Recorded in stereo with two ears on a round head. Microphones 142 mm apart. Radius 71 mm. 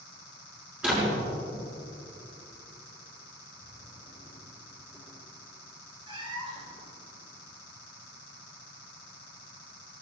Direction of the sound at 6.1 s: 30° right (ahead or behind).